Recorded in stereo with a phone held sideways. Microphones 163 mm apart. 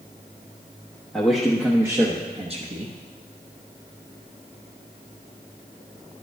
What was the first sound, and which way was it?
A man speaking, 5° left (ahead or behind).